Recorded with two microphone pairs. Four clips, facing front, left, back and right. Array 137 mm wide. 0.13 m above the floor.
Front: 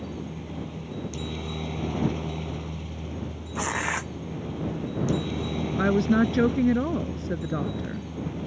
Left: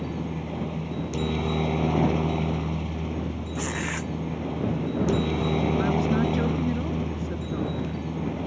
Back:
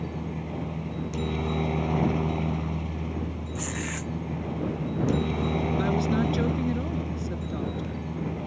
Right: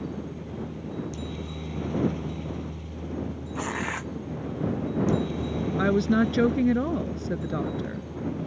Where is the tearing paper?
Straight ahead.